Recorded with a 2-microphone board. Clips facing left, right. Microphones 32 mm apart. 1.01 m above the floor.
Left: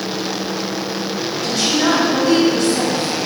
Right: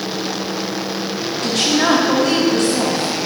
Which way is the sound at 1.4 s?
65° right (ahead or behind).